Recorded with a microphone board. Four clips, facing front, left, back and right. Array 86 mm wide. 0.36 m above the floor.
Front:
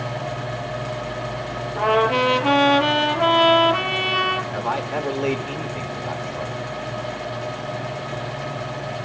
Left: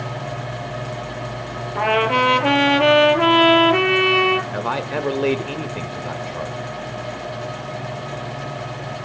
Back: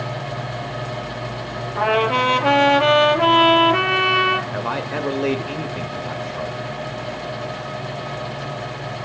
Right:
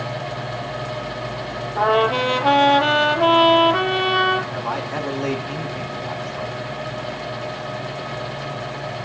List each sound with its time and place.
1.8 s a trumpet: 105° left, 5.5 m
4.5 s a man speaking: 110° left, 0.9 m